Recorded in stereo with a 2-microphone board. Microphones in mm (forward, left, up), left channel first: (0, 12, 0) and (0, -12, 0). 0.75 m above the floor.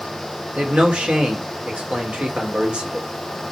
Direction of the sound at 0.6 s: 60° right (ahead or behind).